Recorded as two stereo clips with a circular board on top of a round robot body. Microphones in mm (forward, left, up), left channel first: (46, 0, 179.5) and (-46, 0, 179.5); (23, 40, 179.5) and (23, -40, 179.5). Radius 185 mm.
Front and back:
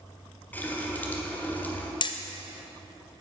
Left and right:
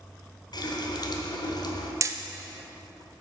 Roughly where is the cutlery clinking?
I don't hear cutlery clinking.